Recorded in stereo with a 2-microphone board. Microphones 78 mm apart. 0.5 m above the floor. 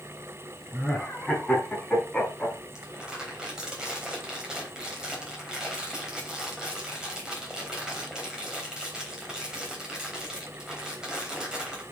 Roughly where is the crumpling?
Centre.